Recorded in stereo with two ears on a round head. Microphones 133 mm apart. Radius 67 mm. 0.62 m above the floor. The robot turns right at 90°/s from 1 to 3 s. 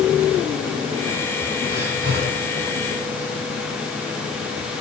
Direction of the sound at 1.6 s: 145° right.